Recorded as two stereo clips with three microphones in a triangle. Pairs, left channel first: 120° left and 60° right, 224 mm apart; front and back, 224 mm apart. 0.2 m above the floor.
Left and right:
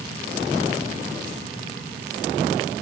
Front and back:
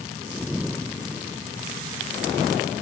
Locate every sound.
Only background noise.